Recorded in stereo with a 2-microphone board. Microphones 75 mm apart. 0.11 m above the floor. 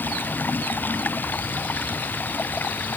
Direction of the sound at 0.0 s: 25° left (ahead or behind).